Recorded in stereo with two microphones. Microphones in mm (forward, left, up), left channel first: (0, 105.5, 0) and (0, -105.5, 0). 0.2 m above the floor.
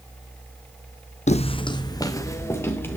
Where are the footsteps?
35° left (ahead or behind), 0.6 m; by 3.0 s 10° left (ahead or behind), 1.8 m.